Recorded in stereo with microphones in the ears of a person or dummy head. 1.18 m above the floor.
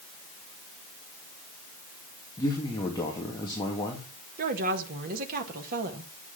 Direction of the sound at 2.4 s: 20° left (ahead or behind).